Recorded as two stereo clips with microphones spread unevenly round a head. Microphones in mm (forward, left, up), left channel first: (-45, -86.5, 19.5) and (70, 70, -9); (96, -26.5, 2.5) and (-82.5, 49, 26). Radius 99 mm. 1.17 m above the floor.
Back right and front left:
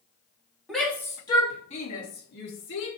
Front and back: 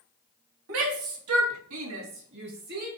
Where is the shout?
145° left, 3 m; by 2.9 s 155° right, 3.5 m.